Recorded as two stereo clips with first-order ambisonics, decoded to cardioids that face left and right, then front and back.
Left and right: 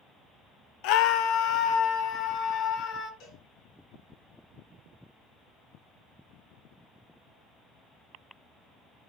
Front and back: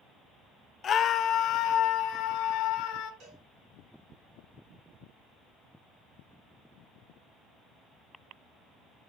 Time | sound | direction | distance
0.8 | a scream | 65° left | 0.6 m
3.2 | a cowbell | 135° left | 5.5 m